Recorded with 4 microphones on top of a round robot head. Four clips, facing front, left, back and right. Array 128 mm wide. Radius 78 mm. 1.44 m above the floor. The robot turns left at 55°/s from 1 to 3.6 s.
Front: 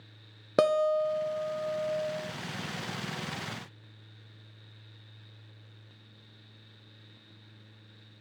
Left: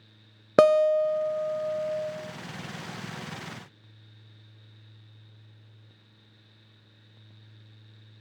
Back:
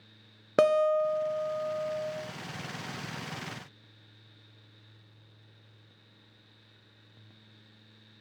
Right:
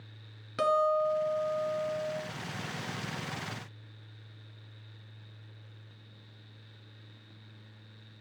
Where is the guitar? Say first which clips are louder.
Left 8 dB, back 1 dB; 85° left, 0.5 m; by 2.1 s 25° left, 0.5 m.